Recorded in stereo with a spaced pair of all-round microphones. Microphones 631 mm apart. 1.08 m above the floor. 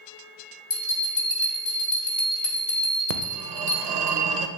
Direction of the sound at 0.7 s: 70° left (ahead or behind).